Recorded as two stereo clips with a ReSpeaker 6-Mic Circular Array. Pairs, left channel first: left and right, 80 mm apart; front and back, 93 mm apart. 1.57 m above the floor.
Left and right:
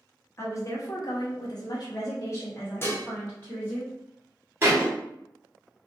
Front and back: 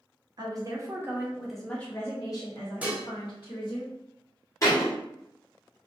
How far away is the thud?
About 1.3 m.